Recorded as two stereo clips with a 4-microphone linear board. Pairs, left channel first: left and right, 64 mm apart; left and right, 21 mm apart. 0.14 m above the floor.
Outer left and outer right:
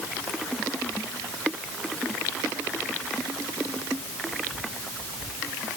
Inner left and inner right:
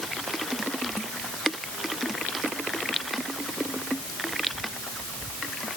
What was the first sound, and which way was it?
Only background noise.